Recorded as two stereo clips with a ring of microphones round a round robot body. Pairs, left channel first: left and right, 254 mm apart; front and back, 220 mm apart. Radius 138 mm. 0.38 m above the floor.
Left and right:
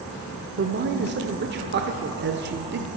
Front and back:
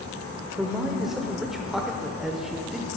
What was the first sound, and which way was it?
A man speaking, 90° right.